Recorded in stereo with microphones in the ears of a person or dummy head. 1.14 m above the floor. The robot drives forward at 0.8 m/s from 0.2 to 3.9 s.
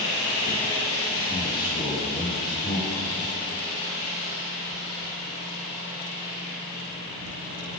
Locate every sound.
1.3 s a man speaking: 30° left (ahead or behind), 1.6 m; by 3.0 s 15° left (ahead or behind), 3 m